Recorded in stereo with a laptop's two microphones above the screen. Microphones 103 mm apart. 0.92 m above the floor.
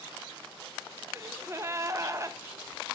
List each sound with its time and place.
1.1 s a gasp: 35° right (ahead or behind), 0.8 m